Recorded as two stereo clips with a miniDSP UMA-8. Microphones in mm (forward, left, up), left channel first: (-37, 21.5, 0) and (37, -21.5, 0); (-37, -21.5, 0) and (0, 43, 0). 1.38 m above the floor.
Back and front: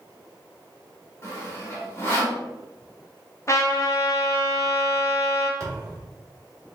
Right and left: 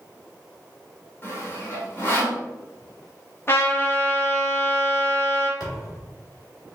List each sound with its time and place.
1.2 s sawing: 165° right, 1.7 m
3.5 s a trumpet: 165° right, 0.9 m
5.6 s a thud: 80° right, 1.9 m